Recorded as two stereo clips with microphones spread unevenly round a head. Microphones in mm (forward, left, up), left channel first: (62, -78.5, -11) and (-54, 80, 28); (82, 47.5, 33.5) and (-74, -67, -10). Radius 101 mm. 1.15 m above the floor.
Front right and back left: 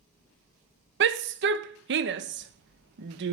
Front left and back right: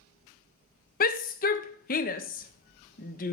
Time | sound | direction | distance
1.0 | a shout | 90° left | 1.2 m